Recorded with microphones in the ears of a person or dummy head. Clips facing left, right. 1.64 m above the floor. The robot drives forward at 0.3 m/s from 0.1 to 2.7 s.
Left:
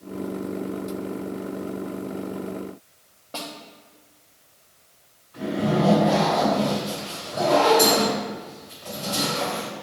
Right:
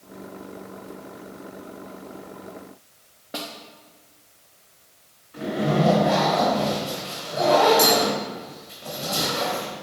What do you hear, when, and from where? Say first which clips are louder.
3.3 s a snare drum: right 1 dB; 10° right (ahead or behind), 1.0 m
5.3 s a zipper: even; 20° right (ahead or behind), 3 m